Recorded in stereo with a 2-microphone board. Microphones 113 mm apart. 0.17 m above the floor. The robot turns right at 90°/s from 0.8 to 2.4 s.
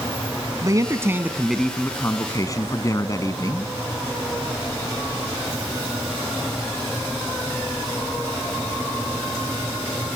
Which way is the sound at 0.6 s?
65° right.